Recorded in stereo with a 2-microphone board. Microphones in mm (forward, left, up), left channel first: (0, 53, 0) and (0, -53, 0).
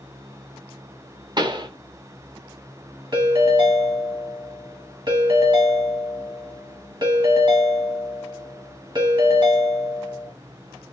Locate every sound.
1.4 s a pop: 45° right (ahead or behind), 0.5 m
3.1 s a ringtone: 45° right (ahead or behind), 1.9 m